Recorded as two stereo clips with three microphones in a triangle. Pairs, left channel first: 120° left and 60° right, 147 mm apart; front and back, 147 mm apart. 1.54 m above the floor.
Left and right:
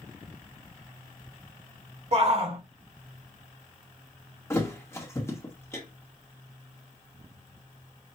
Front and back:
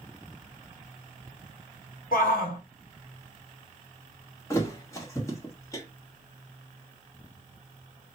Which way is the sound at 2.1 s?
15° right.